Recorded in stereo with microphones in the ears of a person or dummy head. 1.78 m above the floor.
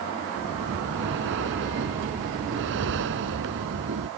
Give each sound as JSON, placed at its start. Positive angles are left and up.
{"t": 0.4, "sound": "breathing", "side_deg": -70}